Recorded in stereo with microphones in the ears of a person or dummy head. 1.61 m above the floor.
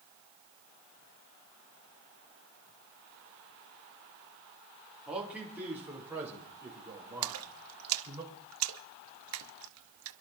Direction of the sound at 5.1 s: 5° right (ahead or behind).